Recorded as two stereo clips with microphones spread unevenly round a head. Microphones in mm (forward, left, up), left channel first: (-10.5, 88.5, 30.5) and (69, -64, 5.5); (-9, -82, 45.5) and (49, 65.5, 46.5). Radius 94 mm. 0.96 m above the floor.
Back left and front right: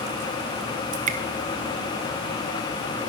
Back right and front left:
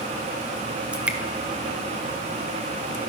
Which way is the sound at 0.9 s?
15° right.